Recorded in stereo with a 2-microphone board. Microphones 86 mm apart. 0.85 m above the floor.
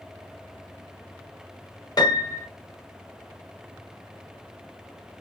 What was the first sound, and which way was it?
A piano, 45° left (ahead or behind).